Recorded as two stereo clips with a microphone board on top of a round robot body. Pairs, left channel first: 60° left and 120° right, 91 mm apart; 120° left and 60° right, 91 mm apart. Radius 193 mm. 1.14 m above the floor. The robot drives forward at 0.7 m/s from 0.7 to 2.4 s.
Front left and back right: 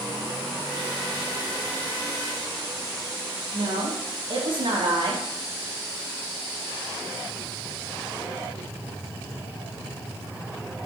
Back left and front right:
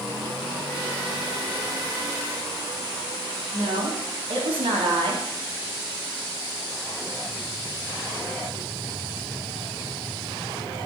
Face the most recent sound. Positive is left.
turn(degrees=-85)